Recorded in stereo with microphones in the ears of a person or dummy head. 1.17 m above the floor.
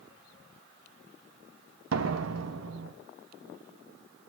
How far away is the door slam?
About 1.1 m.